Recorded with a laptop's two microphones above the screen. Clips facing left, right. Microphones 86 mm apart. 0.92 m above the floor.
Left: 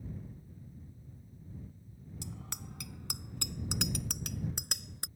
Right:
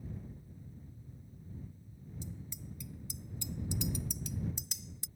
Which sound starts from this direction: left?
A bicycle bell, at 2.2 s.